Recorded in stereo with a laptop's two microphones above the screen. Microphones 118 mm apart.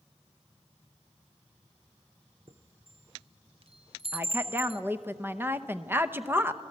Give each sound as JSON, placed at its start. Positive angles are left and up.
{"t": 2.5, "sound": "a chime", "side_deg": -50, "distance_m": 0.7}
{"t": 4.1, "sound": "a woman speaking", "side_deg": -20, "distance_m": 0.7}